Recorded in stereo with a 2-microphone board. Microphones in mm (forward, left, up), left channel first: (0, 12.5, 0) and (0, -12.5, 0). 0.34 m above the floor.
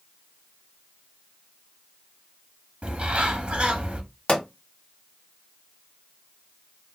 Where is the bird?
50° right (ahead or behind), 0.7 m.